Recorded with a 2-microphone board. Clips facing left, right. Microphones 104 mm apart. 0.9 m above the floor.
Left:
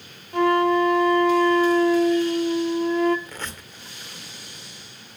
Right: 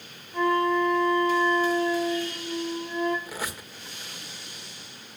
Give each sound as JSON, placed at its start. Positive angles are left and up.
{"t": 0.3, "sound": "a flute", "side_deg": 80, "distance_m": 1.8}
{"t": 3.3, "sound": "a squeak", "side_deg": -10, "distance_m": 1.8}